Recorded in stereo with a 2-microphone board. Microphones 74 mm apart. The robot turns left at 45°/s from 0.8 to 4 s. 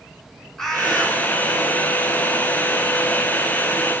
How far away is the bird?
About 1.7 m.